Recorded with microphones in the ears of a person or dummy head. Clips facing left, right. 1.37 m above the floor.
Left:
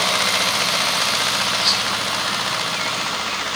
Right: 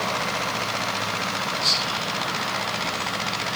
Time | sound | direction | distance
1.6 | whispering | 35° right (ahead or behind) | 7.5 m